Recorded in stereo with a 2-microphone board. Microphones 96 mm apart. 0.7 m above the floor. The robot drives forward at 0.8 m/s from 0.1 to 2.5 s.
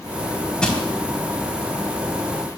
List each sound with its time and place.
0.6 s crushing: 10° left (ahead or behind), 2.5 m